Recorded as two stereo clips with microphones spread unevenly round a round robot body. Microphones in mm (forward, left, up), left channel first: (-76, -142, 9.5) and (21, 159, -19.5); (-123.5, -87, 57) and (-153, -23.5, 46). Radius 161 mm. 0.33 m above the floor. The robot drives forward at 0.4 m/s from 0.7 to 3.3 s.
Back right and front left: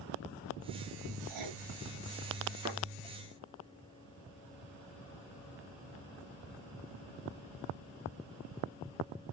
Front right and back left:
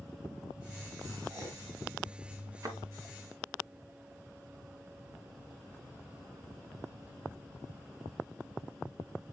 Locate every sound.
1.3 s writing: 65° left, 2.5 m
2.6 s a thud: 150° left, 2 m